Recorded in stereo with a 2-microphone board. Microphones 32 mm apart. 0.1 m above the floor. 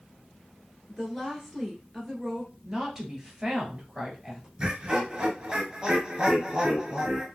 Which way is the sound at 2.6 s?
10° right (ahead or behind).